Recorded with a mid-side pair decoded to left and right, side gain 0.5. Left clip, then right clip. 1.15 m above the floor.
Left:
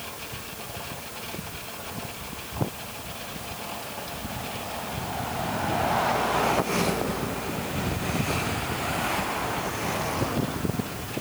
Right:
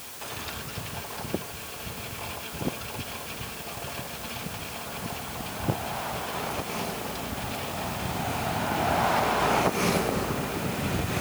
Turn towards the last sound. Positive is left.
No sound to turn to.